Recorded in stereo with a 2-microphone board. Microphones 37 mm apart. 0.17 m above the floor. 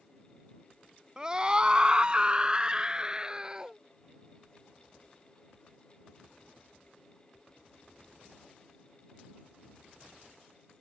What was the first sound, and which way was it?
A scream, 25° right (ahead or behind).